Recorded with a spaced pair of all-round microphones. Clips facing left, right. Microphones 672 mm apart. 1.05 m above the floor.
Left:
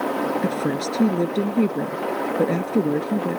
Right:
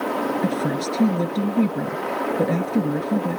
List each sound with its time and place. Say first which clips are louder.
0.4 s a woman speaking: even; 20° right (ahead or behind)